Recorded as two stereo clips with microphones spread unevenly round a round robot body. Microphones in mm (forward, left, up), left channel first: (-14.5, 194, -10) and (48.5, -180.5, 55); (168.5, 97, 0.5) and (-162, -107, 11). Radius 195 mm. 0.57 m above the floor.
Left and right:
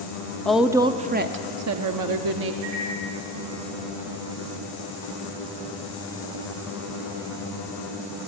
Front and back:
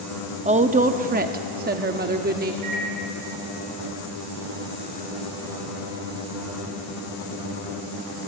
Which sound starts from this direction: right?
A microwave, at 2.6 s.